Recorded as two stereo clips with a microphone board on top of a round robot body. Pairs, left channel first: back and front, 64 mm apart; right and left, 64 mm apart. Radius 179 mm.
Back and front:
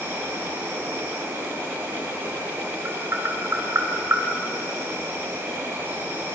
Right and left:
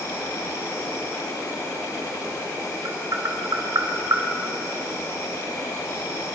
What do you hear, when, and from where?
0.0 s an insect: 60° right, 6.5 m
2.9 s tapping: 50° left, 1.1 m